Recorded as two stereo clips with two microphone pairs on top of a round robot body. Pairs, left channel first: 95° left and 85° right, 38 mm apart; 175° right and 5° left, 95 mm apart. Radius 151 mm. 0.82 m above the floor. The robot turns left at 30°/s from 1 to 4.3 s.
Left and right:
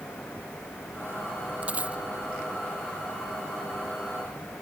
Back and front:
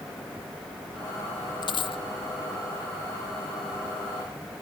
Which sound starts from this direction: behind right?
A dropped coin, at 1.6 s.